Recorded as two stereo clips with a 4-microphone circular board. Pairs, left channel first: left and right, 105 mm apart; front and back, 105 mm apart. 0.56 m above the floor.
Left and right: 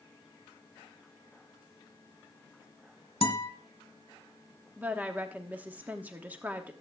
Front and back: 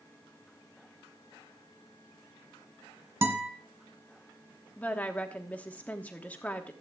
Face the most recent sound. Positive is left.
turn(degrees=-50)